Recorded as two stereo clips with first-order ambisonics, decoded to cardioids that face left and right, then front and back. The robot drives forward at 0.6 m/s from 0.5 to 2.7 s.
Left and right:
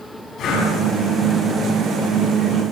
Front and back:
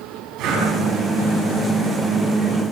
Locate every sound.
0.4 s breathing: 140° left, 7.5 m; by 0.7 s 145° left, 7.5 m